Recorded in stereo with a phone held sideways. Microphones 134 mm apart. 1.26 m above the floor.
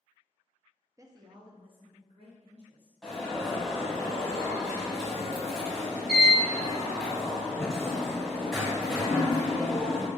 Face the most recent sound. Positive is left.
turn(degrees=0)  # may be behind; listen again after turning